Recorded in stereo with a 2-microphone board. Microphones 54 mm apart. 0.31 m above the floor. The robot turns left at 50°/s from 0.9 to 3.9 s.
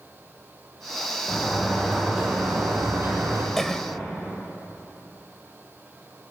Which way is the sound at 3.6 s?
5° left (ahead or behind).